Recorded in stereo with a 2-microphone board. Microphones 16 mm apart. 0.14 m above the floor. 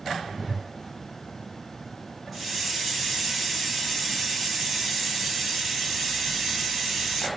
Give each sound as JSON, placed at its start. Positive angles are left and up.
{"t": 0.3, "sound": "a whoosh", "side_deg": -5, "distance_m": 1.6}
{"t": 2.3, "sound": "a hiss", "side_deg": 0, "distance_m": 1.8}